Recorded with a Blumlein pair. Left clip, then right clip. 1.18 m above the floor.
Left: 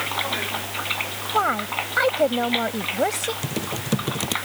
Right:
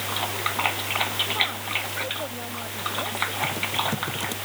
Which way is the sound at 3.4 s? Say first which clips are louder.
Right 3 dB; 65° left.